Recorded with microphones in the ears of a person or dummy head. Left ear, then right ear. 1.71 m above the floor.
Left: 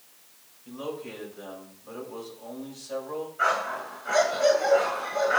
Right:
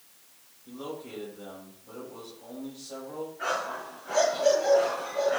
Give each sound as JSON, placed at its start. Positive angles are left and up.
{"t": 0.7, "sound": "a man speaking", "side_deg": 70, "distance_m": 7.0}
{"t": 3.4, "sound": "a dog barking", "side_deg": 55, "distance_m": 6.5}